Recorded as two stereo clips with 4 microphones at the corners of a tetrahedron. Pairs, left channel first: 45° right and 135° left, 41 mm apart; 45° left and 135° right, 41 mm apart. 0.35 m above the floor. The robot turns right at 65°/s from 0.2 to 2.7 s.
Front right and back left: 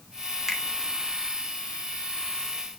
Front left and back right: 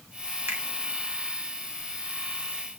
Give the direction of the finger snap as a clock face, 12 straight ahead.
5 o'clock.